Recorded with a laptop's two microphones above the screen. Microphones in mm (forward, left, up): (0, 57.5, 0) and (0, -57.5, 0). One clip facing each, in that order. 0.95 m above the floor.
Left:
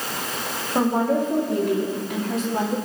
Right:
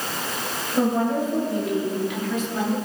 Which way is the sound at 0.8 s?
55° left (ahead or behind).